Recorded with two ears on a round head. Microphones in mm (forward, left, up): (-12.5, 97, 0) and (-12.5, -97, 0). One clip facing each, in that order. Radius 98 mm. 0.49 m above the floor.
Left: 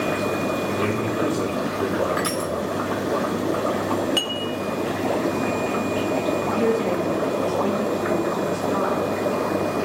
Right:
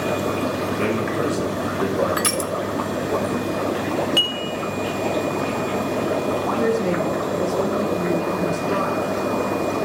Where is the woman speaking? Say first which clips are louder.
Right 1 dB; 55° right (ahead or behind), 4.5 m.